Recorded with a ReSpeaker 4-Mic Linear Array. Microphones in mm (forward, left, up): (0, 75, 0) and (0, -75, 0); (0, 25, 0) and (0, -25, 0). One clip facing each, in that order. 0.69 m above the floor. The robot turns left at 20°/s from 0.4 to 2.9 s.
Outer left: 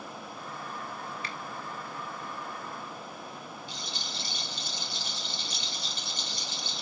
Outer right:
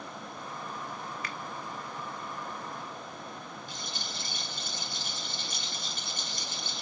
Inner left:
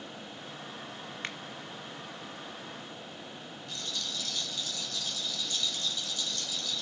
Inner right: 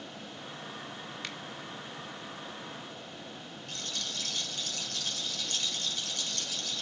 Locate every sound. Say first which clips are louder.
1.2 s a finger snap: even, inner left 4 dB; 30° left (ahead or behind), 1.1 m
3.7 s a rattle: even, even; 50° right (ahead or behind), 2.5 m